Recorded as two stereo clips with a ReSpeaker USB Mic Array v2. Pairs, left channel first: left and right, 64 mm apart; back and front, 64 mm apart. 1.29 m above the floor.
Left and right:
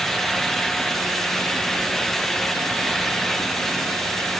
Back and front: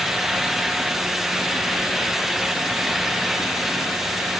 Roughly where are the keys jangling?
I don't hear keys jangling.